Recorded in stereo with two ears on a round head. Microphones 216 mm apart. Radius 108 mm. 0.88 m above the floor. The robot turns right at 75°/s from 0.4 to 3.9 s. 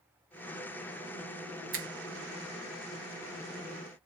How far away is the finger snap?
About 0.5 m.